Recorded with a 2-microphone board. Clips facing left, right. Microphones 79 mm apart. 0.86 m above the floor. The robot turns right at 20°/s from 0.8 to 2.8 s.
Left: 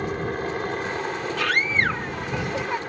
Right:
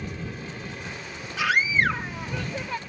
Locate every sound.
0.0 s a helicopter: 65° left; by 2.9 s 105° left
1.4 s a scream: 10° right (ahead or behind); by 2.8 s 20° left (ahead or behind)